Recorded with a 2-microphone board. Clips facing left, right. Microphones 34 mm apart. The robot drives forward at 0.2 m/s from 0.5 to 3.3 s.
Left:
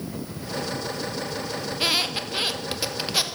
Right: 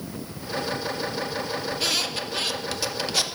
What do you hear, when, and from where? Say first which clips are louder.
1.7 s a squeak: left 4 dB; 25° left (ahead or behind), 0.5 m; by 3.2 s 20° left (ahead or behind), 0.7 m